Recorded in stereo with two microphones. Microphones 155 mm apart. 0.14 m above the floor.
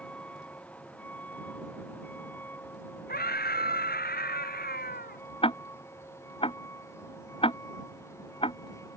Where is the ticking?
35° left (ahead or behind).